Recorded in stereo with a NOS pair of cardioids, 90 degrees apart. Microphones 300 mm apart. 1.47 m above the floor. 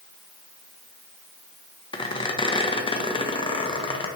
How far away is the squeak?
About 1.1 m.